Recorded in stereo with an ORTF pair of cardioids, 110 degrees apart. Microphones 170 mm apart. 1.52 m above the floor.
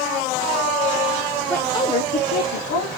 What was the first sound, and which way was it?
A woman speaking, 5° left.